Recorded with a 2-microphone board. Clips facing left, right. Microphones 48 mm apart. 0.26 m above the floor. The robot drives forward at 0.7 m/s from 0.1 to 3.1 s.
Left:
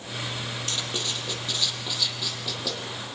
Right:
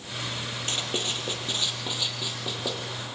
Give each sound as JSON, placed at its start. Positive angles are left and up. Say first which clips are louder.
{"t": 0.7, "sound": "writing", "louder": "right 3 dB", "side_deg": -30, "distance_m": 4.5}